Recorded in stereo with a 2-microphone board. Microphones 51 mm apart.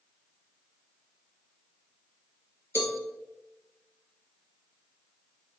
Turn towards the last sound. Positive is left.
turn(degrees=60)  # may be behind; listen again after turning